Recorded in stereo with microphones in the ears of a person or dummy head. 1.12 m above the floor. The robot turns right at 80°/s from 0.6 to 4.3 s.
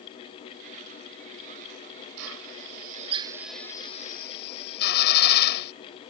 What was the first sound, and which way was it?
A drill, 70° right (ahead or behind).